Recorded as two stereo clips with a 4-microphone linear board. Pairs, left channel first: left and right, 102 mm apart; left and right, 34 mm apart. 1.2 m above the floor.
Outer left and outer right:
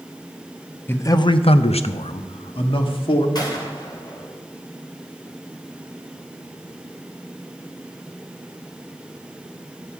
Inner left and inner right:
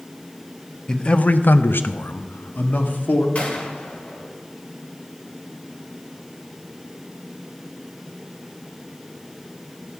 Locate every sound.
0.9 s a man speaking: 20° left (ahead or behind), 0.8 m; by 3.2 s 55° left (ahead or behind), 2.5 m
3.4 s a gunshot: 40° left (ahead or behind), 3 m